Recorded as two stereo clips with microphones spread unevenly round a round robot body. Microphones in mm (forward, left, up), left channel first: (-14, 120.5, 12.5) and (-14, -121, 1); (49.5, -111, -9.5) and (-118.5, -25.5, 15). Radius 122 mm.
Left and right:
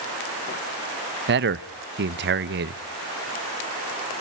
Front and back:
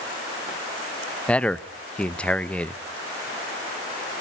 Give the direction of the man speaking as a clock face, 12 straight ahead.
3 o'clock.